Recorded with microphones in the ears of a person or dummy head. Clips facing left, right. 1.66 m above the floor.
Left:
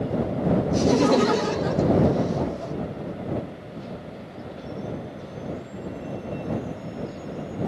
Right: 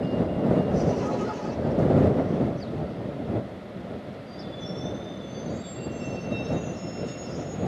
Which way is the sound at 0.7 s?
80° left.